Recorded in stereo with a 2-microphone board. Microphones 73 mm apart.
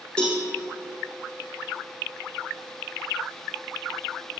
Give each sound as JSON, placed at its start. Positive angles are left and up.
{"t": 0.2, "sound": "a cowbell", "side_deg": 10, "distance_m": 4.0}